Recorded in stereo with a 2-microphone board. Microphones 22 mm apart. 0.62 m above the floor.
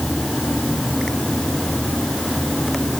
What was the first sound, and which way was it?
Only background noise.